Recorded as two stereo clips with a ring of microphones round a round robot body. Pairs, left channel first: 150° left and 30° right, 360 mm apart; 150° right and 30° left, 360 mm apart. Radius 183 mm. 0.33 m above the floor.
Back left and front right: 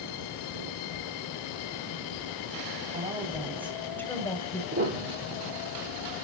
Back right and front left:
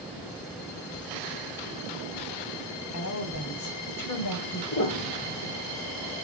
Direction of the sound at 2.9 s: 105° right.